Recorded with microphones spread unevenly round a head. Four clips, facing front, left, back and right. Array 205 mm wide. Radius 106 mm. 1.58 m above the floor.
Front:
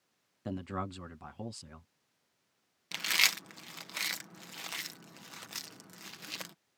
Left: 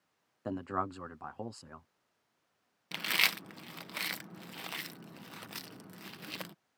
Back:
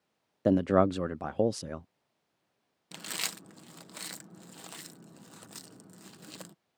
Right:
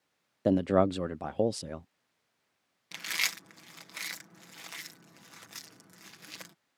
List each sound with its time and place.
0.5 s a man speaking: 140° right
2.9 s chewing: 110° left